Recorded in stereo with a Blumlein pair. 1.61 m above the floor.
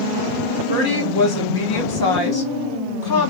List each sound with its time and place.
0.7 s a woman speaking: 45° left, 2 m